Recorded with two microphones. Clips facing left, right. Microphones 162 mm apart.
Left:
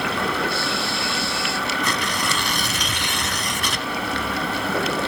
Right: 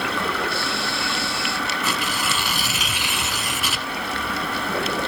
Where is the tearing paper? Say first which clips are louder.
Left 1 dB; 5° right (ahead or behind), 1.3 m.